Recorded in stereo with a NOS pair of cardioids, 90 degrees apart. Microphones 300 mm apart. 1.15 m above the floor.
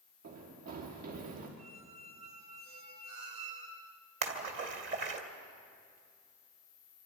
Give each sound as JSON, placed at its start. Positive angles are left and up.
{"t": 0.2, "sound": "running footsteps", "azimuth_deg": -65, "distance_m": 6.0}
{"t": 1.6, "sound": "a squeak", "azimuth_deg": -60, "distance_m": 3.0}
{"t": 4.2, "sound": "a splash", "azimuth_deg": -40, "distance_m": 3.0}